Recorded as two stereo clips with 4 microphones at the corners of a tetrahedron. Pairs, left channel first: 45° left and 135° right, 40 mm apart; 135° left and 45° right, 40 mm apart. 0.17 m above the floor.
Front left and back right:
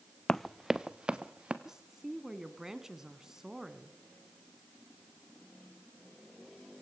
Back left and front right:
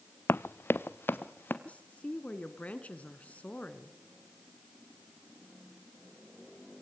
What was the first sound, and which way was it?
Running footsteps, 120° left.